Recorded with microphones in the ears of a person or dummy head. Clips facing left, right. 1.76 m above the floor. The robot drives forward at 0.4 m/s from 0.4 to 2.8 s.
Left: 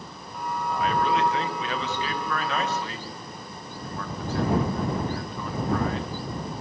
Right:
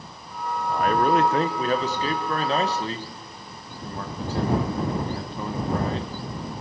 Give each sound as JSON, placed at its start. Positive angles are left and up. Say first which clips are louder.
{"t": 0.7, "sound": "a man speaking", "louder": "right 4 dB", "side_deg": -50, "distance_m": 1.6}